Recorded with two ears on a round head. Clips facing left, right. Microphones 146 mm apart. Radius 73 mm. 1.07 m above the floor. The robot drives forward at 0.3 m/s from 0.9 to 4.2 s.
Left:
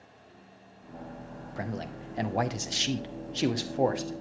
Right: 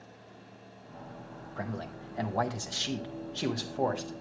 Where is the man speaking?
20° left (ahead or behind), 0.7 m.